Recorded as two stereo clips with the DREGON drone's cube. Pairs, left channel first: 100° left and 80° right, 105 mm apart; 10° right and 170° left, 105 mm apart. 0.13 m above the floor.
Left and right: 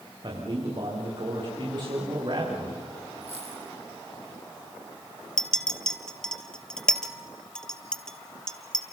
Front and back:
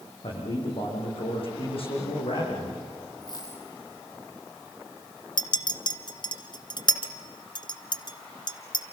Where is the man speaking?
40° right, 8.5 m.